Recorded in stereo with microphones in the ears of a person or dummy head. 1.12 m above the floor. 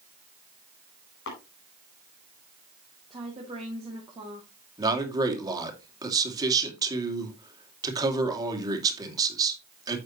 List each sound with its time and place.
1.3 s tapping: 75° left (ahead or behind), 4.5 m
3.1 s a woman speaking: 20° right (ahead or behind), 2.5 m
4.8 s a man speaking: 25° right (ahead or behind), 2.5 m